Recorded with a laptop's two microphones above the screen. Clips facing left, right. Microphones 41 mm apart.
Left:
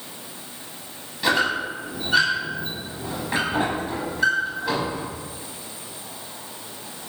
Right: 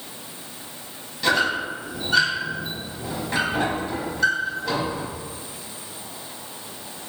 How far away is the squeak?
About 0.9 m.